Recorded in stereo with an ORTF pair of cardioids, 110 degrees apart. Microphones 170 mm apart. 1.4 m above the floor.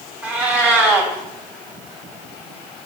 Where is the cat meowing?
10° right, 3.5 m.